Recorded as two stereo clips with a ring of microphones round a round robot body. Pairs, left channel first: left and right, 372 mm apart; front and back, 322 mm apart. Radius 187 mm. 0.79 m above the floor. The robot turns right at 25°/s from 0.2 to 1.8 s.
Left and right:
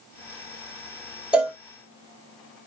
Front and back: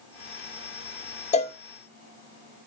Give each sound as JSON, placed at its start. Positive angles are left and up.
{"t": 1.3, "sound": "a cowbell", "azimuth_deg": -10, "distance_m": 0.9}